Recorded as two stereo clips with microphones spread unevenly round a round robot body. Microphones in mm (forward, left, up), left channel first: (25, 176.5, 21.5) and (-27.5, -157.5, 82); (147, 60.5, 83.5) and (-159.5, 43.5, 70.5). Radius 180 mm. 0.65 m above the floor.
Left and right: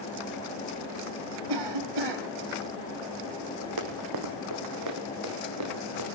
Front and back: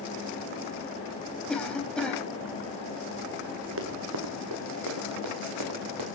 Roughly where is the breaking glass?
I don't hear breaking glass.